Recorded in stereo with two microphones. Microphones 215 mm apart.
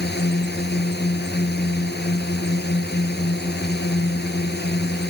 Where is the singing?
I don't hear singing.